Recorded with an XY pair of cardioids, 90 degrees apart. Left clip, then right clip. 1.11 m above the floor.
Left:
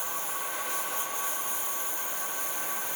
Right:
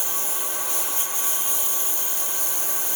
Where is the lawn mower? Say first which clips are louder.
Right 4 dB; 70° right.